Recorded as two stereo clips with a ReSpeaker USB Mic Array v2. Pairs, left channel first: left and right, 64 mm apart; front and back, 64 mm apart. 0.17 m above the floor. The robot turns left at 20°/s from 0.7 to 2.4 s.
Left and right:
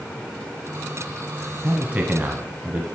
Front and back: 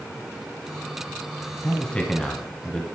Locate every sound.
1.6 s a man speaking: 50° right, 1.2 m; by 2.9 s 65° right, 1.2 m